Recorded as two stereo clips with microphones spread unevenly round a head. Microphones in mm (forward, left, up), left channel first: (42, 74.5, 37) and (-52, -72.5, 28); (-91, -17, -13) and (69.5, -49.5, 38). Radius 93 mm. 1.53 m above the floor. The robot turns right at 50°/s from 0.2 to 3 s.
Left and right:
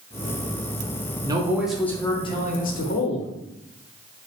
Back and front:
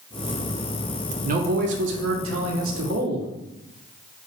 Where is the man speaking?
55° right, 0.7 m; by 3.3 s 30° left, 0.7 m.